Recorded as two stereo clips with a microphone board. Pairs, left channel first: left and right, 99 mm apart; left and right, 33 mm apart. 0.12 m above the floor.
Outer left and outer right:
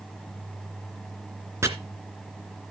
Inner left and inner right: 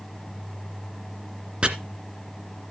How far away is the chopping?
About 1.8 m.